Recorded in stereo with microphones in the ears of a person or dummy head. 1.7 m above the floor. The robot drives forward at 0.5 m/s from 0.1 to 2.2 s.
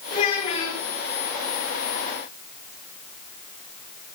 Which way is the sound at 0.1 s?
40° left (ahead or behind).